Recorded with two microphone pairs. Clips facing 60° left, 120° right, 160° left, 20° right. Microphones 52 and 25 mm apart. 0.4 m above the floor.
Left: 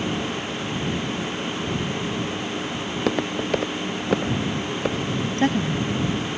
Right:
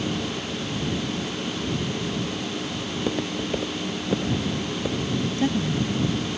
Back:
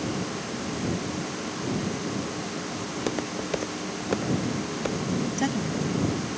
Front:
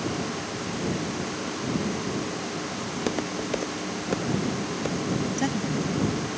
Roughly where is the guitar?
No guitar in this recording.